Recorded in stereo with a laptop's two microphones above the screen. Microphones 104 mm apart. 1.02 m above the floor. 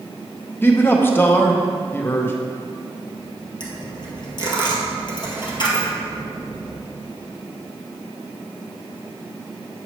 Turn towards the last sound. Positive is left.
turn(degrees=45)  # may be behind; listen again after turning